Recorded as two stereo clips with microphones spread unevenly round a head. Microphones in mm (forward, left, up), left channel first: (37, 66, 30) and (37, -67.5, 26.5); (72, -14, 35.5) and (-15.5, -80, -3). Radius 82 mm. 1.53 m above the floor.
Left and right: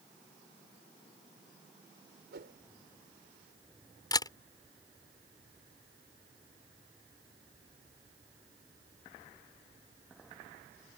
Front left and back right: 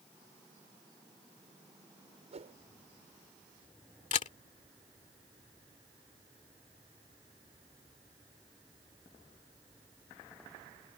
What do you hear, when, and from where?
2.3 s a whoosh: 110° right
4.1 s a camera shutter: 30° left